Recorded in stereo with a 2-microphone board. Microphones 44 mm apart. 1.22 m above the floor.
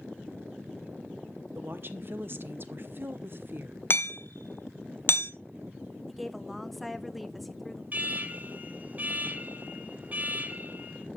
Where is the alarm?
35° right (ahead or behind), 1.0 m.